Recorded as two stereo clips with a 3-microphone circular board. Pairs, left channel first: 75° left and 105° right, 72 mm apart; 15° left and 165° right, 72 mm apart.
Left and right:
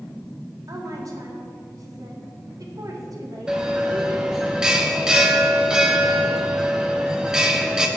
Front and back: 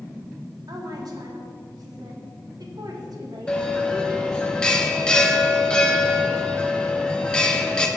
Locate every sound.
0.7 s a woman speaking: 140° right, 1.7 m
3.5 s a bell: 40° right, 0.9 m